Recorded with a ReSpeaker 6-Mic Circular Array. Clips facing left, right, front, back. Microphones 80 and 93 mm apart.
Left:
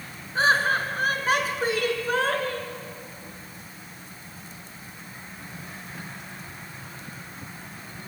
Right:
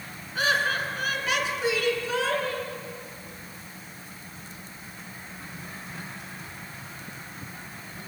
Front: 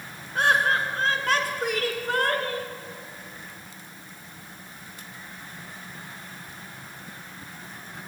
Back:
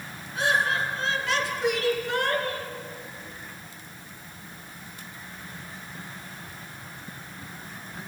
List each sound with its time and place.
0.3 s laughter: 35° left, 4 m; by 2.7 s 50° left, 5 m